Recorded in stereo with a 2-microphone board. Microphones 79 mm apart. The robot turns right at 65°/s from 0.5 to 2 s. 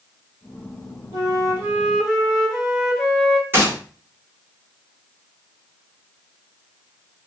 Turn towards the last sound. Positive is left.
turn(degrees=-30)  # may be behind; listen again after turning